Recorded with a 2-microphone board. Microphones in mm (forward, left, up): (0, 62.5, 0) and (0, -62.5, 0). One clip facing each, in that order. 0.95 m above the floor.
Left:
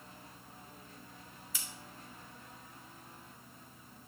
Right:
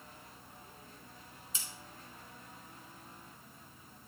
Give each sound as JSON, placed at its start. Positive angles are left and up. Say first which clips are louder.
{"t": 1.5, "sound": "scissors", "louder": "left 1 dB", "side_deg": -25, "distance_m": 2.5}